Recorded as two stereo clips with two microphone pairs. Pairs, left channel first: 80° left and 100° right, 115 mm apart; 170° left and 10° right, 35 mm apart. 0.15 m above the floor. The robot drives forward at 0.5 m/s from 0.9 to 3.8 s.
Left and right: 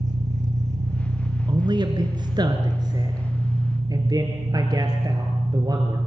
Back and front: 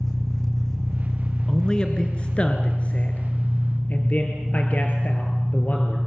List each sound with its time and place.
0.0 s an engine running: 110° right, 2.5 m; by 6.1 s 135° right, 3.5 m
1.5 s a man speaking: 130° right, 1.7 m; by 6.0 s 155° right, 2.5 m